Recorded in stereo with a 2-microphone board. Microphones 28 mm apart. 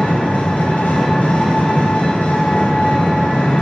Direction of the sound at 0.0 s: 70° left (ahead or behind).